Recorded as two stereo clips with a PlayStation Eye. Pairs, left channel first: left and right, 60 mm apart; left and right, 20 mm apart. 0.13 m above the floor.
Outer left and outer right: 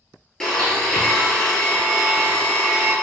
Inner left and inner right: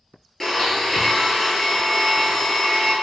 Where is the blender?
10° left (ahead or behind), 0.8 m.